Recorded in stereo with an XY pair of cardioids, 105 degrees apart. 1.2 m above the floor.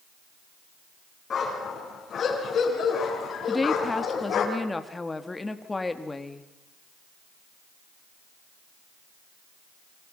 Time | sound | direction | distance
1.3 | a dog barking | 45° left | 7 m
3.5 | a woman speaking | 20° left | 2.5 m